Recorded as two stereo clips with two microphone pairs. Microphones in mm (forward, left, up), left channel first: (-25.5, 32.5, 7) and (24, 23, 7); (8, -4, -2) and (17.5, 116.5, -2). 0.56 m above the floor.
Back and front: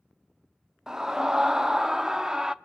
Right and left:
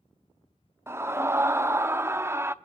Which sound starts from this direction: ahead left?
A scream, at 0.9 s.